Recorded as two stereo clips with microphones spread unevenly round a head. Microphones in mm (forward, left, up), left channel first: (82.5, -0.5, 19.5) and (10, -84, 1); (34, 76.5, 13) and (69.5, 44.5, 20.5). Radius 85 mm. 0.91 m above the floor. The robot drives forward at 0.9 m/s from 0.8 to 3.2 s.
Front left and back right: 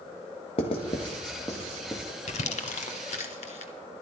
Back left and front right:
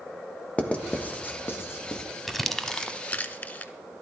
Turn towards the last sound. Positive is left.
turn(degrees=85)